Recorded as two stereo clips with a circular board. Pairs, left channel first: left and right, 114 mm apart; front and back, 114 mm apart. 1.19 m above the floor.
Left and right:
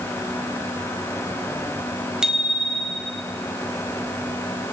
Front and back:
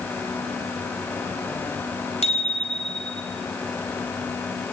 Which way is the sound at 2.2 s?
5° right.